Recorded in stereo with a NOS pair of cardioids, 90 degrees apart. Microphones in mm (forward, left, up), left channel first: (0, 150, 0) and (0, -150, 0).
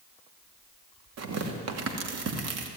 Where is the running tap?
I don't hear a running tap.